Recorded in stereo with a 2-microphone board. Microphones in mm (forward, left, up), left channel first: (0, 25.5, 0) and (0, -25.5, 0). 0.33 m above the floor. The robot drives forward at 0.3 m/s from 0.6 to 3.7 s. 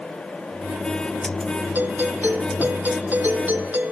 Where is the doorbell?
35° right (ahead or behind).